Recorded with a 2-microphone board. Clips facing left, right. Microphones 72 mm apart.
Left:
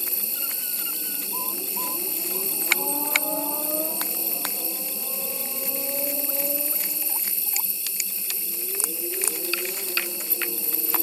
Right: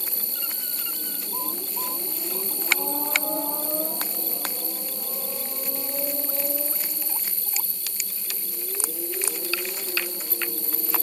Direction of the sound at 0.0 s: 50° right (ahead or behind).